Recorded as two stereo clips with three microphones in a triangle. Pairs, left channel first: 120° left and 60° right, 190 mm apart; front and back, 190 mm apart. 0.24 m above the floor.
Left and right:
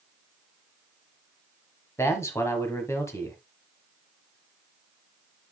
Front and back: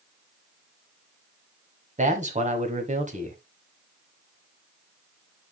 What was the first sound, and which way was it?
A man speaking, 175° right.